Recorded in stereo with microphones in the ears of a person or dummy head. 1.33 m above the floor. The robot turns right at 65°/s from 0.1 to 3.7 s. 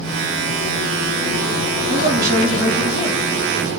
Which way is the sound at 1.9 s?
45° right.